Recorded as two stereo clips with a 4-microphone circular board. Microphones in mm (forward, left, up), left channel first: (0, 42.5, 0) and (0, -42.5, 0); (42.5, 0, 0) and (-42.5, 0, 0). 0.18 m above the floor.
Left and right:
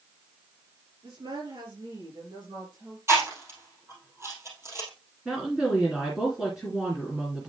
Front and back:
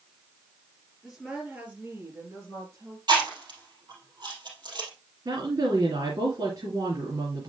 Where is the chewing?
150° right, 3 m.